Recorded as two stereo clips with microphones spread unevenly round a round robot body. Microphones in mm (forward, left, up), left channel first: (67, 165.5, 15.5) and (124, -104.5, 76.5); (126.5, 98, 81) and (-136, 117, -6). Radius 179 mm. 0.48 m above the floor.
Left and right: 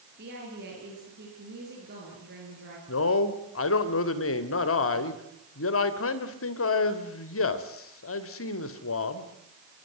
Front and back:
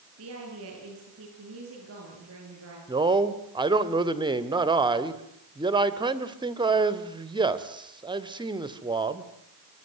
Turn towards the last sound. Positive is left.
turn(degrees=115)